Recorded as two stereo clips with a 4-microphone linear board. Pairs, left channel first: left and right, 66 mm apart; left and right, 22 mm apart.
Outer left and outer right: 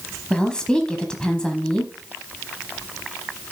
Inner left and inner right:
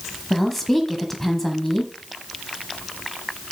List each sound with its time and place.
0.3 s a woman speaking: 10° left (ahead or behind), 1.0 m